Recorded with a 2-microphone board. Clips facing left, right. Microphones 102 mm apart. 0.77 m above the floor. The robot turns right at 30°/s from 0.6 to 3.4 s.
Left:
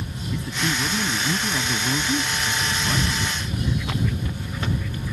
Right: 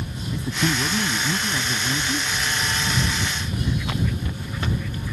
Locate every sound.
0.3 s a man speaking: 20° right; by 3.3 s 60° left